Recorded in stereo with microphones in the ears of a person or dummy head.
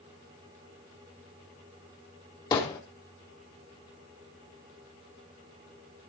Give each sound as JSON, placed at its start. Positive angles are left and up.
{"t": 2.5, "sound": "hammering", "side_deg": 25, "distance_m": 3.0}